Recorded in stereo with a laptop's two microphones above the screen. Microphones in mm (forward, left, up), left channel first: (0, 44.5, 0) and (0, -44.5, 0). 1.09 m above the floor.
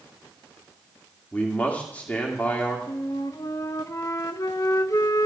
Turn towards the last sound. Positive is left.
turn(degrees=40)  # may be behind; listen again after turning